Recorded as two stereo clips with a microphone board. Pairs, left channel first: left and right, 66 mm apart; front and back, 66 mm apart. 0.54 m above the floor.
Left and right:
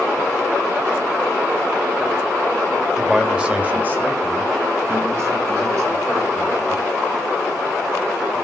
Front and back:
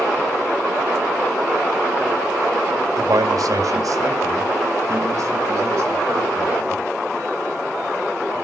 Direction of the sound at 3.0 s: Straight behind.